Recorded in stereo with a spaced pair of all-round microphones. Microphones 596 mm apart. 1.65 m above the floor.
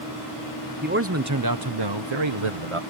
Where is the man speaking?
15° right (ahead or behind); by 2.8 s 55° right (ahead or behind).